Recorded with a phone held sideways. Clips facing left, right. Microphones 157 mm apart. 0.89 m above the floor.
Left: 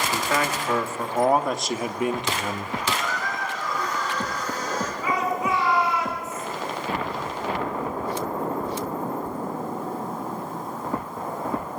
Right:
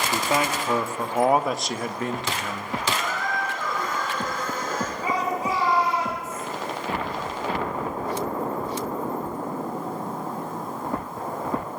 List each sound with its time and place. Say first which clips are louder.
0.1 s a man speaking: right 2 dB; 25° right (ahead or behind), 1.7 m; by 2.8 s 35° left (ahead or behind), 0.9 m
2.9 s a squeak: right 2 dB; 50° right (ahead or behind), 6 m
5.0 s a shout: left 1 dB; 35° right (ahead or behind), 10 m